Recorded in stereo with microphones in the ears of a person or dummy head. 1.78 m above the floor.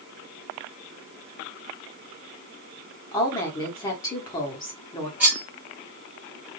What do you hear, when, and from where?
3.1 s a woman speaking: 15° left (ahead or behind), 1.2 m
5.2 s cutlery clinking: 10° right (ahead or behind), 0.9 m